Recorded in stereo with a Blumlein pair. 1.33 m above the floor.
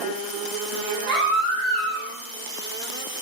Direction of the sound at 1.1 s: 15° right.